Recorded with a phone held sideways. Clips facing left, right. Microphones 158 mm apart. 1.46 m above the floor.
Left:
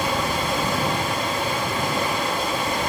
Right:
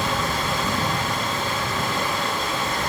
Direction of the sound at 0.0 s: 15° left (ahead or behind).